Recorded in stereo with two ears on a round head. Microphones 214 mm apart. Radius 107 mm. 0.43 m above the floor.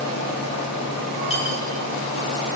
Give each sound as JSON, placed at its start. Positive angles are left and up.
{"t": 1.3, "sound": "cutlery clinking", "side_deg": 25, "distance_m": 7.0}